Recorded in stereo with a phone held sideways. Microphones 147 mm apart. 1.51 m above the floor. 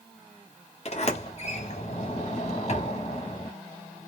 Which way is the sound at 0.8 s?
50° left (ahead or behind).